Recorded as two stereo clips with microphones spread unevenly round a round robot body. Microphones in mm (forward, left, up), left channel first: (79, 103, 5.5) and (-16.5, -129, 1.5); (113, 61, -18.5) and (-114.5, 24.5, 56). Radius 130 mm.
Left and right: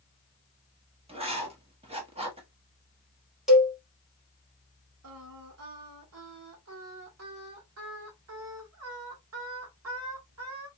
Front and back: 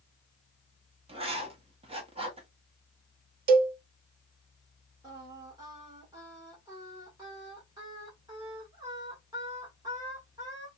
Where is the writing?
95° right, 1.1 m.